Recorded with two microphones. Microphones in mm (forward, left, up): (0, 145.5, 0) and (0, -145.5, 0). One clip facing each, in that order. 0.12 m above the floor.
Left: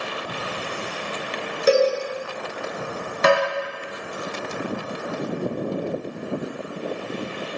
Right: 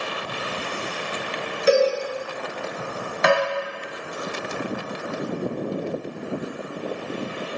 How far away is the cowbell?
About 0.6 m.